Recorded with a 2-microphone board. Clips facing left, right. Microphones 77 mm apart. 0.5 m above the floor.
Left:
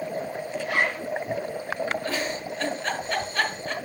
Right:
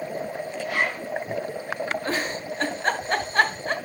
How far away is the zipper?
About 6 m.